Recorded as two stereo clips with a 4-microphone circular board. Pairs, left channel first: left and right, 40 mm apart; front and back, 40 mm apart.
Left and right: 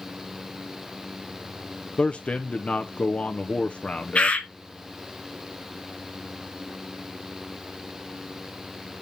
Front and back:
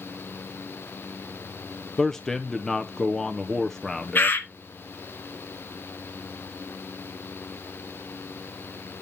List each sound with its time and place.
2.0 s a man speaking: 75° left, 0.5 m
4.2 s a bird: 35° left, 1.1 m